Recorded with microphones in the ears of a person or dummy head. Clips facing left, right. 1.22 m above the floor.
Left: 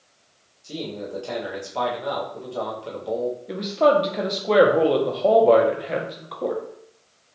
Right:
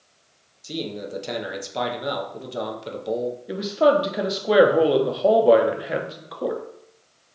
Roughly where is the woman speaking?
Centre.